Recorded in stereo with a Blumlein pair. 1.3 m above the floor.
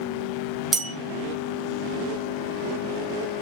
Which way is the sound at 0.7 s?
15° right.